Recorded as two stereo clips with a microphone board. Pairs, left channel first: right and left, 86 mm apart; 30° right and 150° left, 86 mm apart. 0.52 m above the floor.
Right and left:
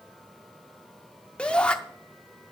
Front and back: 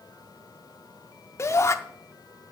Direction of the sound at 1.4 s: 20° right.